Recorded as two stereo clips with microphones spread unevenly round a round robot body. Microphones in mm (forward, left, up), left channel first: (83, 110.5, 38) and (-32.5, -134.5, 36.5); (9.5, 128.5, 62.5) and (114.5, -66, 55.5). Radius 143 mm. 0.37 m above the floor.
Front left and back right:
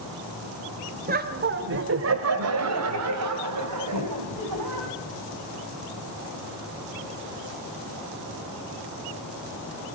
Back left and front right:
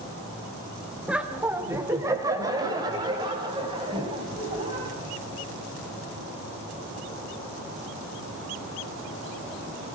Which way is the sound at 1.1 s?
140° right.